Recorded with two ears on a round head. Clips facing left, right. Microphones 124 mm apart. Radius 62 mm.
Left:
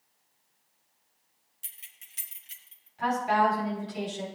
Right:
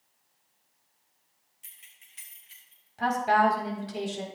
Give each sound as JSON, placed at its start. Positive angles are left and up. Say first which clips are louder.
{"t": 1.6, "sound": "keys jangling", "louder": "left 2 dB", "side_deg": 40, "distance_m": 1.7}
{"t": 3.0, "sound": "a woman speaking", "louder": "right 2 dB", "side_deg": -60, "distance_m": 4.5}